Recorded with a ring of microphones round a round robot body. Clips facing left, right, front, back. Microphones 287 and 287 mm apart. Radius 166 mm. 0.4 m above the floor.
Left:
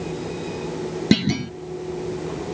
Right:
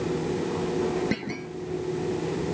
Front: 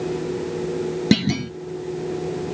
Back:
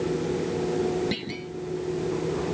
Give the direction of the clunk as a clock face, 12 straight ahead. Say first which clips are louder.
Left 11 dB, front 13 dB; 11 o'clock.